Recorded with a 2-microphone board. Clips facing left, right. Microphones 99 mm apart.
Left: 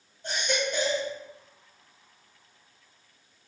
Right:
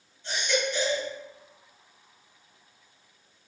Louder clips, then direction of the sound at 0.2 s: Right 1 dB; 50° left (ahead or behind).